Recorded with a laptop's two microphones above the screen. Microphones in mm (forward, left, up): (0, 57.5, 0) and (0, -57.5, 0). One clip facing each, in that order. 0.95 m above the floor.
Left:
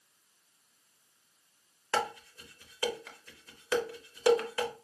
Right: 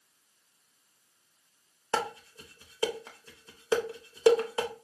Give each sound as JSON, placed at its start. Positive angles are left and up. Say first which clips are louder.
{"t": 1.9, "sound": "dishes clattering", "louder": "right 1 dB", "side_deg": -25, "distance_m": 0.6}